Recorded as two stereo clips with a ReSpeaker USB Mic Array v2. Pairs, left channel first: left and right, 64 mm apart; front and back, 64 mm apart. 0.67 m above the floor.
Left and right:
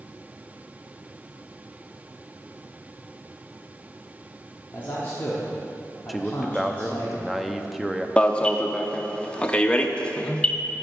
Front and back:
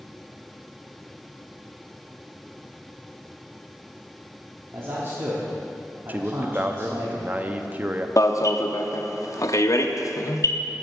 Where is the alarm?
20° left, 0.5 m.